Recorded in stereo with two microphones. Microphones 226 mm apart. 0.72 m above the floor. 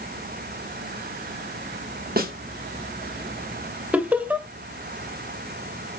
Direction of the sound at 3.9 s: 5° right (ahead or behind).